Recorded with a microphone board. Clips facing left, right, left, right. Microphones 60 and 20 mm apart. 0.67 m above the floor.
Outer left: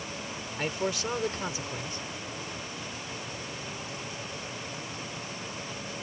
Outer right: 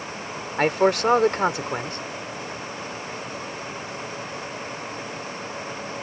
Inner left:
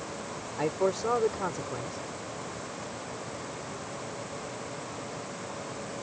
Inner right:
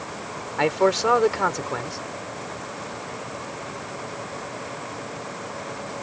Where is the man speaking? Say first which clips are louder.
Outer right 12 dB, inner right 8 dB; 65° right (ahead or behind).